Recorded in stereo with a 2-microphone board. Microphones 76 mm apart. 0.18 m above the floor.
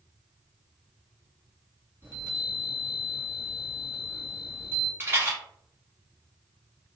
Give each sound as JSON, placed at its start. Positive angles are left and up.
{"t": 2.0, "sound": "a chime", "side_deg": -30, "distance_m": 1.9}
{"t": 5.0, "sound": "a rattle", "side_deg": -30, "distance_m": 1.4}